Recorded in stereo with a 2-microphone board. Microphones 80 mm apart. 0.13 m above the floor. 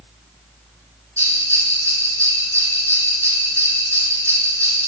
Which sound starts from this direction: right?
A bell, at 1.2 s.